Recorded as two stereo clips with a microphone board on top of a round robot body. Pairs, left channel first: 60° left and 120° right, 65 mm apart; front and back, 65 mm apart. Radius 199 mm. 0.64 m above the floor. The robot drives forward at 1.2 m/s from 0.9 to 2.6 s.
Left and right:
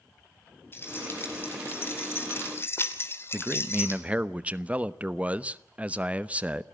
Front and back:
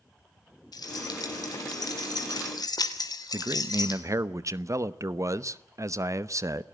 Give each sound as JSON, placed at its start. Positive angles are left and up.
{"t": 0.7, "sound": "keys jangling", "azimuth_deg": 5, "distance_m": 4.5}
{"t": 3.3, "sound": "a man speaking", "azimuth_deg": 175, "distance_m": 1.2}